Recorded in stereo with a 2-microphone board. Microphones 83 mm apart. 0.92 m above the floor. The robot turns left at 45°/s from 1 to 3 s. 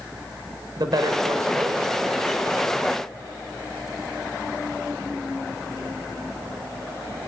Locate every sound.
0.8 s a woman speaking: 120° right, 3.5 m; by 3.1 s 150° left, 3.5 m